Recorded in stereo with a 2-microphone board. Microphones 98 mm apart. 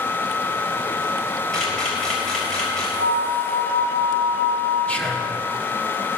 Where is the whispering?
15° left (ahead or behind), 0.9 m.